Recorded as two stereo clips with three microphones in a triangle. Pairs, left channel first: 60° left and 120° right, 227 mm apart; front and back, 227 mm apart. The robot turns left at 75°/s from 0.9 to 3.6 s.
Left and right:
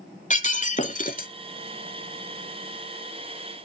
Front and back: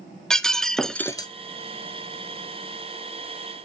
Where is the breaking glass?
85° left, 0.7 m; by 1.3 s 55° left, 0.7 m.